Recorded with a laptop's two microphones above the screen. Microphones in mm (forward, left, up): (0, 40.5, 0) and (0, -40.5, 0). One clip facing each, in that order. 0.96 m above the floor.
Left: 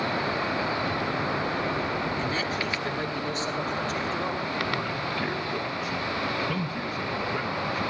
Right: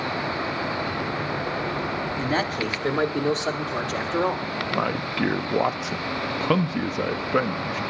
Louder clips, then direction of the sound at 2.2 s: Right 4 dB; 50° right (ahead or behind).